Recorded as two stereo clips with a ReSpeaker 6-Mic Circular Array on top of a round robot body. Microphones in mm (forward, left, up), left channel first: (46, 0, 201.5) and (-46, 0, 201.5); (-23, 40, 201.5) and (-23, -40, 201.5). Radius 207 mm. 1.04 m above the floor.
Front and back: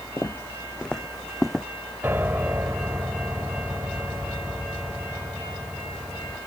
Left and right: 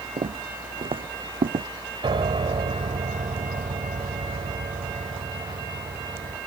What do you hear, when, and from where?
0.2 s footsteps: 75° right; by 1.7 s 95° right
2.0 s a piano: 110° right